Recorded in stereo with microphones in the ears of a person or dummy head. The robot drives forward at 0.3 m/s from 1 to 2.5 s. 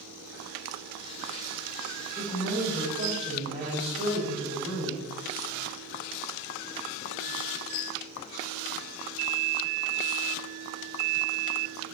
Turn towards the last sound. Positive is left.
turn(degrees=-60)  # may be behind; listen again after turning